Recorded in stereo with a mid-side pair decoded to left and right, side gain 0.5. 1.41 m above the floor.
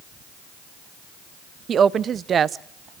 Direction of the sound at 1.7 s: 45° right.